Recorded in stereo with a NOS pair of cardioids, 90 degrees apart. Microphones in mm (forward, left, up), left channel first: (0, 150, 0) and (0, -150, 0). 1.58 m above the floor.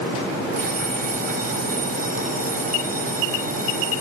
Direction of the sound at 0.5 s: 30° right.